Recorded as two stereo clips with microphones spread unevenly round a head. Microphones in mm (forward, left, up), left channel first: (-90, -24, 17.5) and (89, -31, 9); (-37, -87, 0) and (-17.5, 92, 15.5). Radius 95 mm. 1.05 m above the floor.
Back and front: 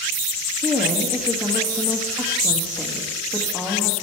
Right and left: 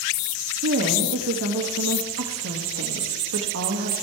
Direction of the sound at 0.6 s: 85° left.